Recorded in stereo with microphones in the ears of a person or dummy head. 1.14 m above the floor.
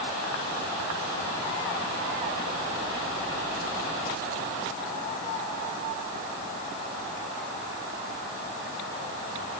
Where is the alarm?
I don't hear an alarm.